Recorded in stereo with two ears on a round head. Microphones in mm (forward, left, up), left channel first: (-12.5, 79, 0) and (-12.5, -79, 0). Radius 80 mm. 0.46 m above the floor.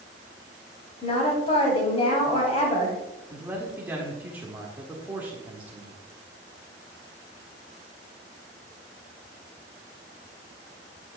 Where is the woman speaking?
35° left (ahead or behind), 2.5 m.